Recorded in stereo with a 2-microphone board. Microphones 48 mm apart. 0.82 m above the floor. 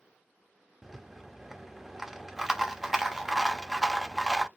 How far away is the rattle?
About 0.6 m.